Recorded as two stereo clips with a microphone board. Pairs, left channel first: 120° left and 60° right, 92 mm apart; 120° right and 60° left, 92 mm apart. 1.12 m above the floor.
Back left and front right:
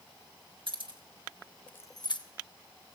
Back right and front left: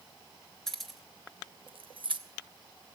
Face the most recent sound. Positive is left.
turn(degrees=90)